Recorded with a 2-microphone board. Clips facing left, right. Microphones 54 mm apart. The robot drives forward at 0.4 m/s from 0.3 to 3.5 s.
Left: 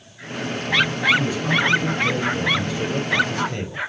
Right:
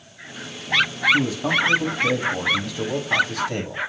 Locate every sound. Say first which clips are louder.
1.1 s a man speaking: even; 70° right (ahead or behind), 6 m; by 3.8 s 75° right (ahead or behind), 6 m